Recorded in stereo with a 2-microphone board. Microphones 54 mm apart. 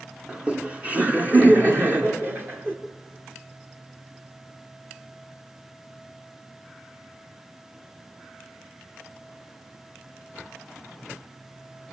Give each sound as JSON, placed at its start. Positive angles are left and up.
{"t": 0.3, "sound": "laughter", "side_deg": -15, "distance_m": 1.7}